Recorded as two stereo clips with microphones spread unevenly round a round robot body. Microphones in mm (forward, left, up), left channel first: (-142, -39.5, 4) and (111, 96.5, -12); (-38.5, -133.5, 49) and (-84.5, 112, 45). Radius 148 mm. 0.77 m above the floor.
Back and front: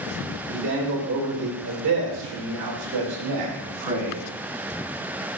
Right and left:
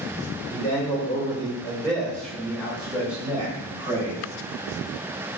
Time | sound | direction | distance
0.5 | a man speaking | 15° right | 2.5 m